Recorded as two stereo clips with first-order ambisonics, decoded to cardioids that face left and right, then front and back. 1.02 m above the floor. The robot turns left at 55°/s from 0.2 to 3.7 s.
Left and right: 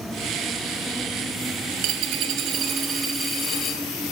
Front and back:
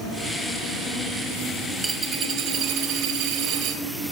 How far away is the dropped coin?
About 3.5 m.